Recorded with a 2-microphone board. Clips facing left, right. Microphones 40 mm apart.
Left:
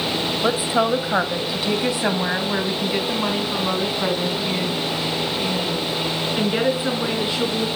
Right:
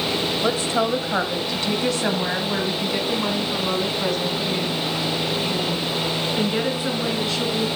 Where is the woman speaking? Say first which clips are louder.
Left 3 dB; 10° left (ahead or behind), 2.0 m; by 7.7 s 15° left (ahead or behind), 6 m.